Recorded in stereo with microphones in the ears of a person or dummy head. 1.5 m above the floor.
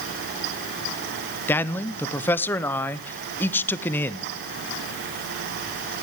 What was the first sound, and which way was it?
A man speaking, 10° left (ahead or behind).